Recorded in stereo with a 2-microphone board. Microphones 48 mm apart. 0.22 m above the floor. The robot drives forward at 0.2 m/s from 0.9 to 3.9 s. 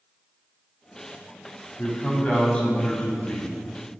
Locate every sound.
1.8 s a man speaking: 25° left (ahead or behind), 1.5 m